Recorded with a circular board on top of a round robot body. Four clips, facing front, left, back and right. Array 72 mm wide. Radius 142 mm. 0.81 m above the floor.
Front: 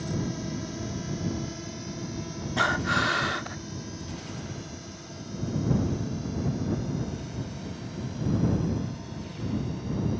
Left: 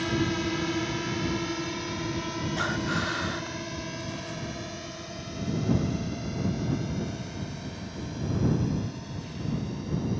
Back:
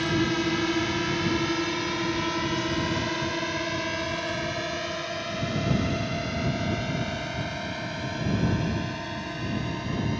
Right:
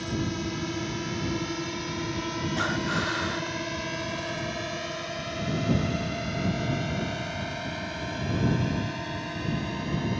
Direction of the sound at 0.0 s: 160° left.